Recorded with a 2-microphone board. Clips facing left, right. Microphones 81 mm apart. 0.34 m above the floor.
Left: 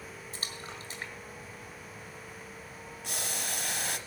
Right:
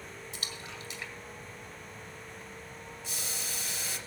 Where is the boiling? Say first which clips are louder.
Left 6 dB; 60° left (ahead or behind), 0.8 m.